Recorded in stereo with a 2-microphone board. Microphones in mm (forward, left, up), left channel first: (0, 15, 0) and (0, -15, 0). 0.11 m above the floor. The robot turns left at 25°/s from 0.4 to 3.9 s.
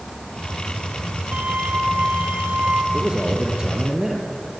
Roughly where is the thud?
No thud in this recording.